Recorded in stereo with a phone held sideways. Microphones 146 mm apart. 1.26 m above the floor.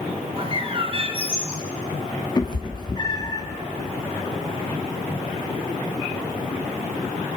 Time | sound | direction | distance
0.4 | a bird | 40° right (ahead or behind) | 2 m
2.4 | a cat meowing | 30° left (ahead or behind) | 1.4 m